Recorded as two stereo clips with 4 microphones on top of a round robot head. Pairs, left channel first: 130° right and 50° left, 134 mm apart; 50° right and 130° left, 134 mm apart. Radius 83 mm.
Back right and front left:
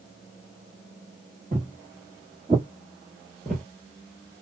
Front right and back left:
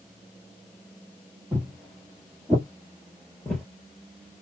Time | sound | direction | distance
1.5 | footsteps | 70° left | 2 m